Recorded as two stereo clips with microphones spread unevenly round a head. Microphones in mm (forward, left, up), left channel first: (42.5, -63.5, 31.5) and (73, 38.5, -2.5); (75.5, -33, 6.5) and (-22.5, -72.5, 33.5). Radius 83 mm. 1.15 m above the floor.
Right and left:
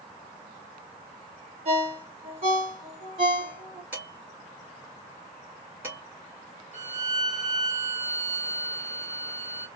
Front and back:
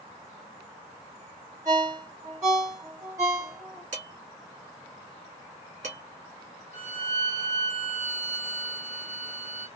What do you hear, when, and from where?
1.6 s a ringtone: 130° left, 1.8 m
3.9 s dishes clattering: 155° left, 2.0 m
6.7 s a violin: 155° left, 2 m